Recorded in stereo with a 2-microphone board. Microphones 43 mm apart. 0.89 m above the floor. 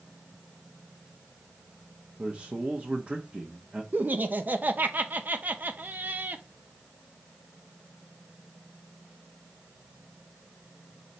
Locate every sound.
2.2 s a man speaking: 30° right (ahead or behind), 0.9 m
3.9 s laughter: 40° right (ahead or behind), 0.7 m